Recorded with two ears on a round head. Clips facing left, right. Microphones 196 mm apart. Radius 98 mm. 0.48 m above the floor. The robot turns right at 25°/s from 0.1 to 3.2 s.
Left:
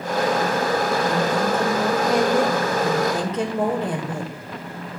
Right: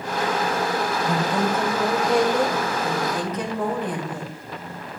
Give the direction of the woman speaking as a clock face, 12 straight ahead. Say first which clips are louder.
Left 2 dB; 1 o'clock.